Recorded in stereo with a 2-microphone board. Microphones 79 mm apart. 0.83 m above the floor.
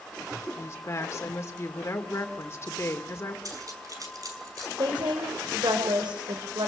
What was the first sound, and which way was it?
A woman speaking, 35° left (ahead or behind).